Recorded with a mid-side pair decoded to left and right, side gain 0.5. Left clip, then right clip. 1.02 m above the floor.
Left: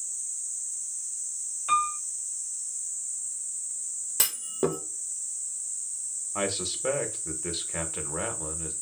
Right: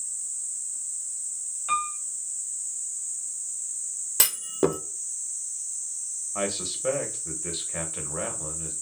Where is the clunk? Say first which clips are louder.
Right 4 dB; 20° right, 0.5 m.